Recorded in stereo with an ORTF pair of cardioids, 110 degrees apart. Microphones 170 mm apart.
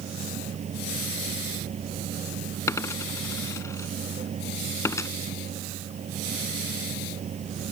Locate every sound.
0.0 s a machine running: 45° right
2.7 s a dropped coin: 20° left